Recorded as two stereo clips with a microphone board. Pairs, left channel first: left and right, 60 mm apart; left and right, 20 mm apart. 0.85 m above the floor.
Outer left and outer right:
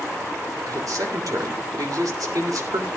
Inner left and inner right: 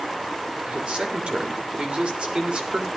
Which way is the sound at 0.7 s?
65° right (ahead or behind).